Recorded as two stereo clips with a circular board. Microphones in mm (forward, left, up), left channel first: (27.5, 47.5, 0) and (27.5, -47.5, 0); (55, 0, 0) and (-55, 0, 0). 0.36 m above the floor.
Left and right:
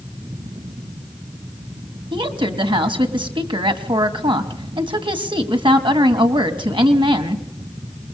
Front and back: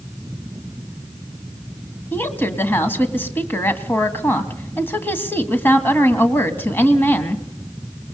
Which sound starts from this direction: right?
A woman speaking, at 2.1 s.